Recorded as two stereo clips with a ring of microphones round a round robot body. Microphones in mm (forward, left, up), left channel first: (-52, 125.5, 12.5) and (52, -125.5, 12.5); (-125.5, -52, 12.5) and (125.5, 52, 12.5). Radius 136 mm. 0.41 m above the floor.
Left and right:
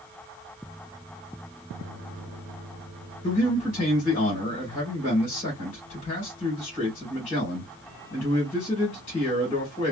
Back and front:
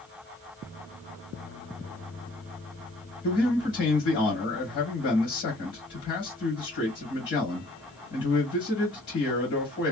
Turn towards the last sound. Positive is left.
turn(degrees=170)